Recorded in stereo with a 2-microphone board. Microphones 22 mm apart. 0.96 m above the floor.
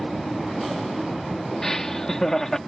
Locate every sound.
1.6 s laughter: 25° left (ahead or behind)